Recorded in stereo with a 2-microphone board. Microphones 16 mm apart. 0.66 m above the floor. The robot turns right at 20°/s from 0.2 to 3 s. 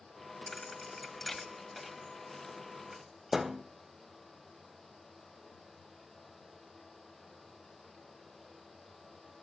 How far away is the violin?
No violin in this recording.